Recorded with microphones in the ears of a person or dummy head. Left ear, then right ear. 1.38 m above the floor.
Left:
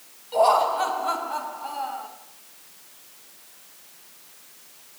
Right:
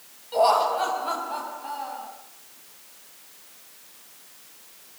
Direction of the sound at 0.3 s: 5° left (ahead or behind).